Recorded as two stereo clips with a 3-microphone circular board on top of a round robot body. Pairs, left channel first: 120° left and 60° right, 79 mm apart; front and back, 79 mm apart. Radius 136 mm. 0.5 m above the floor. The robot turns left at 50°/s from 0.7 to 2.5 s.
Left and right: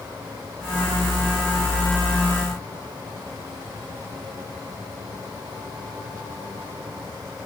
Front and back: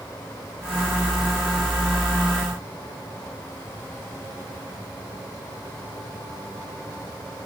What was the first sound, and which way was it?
Only background noise.